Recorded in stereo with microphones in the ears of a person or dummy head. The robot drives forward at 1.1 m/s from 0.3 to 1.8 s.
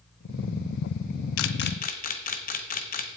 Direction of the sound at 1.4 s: 80° left.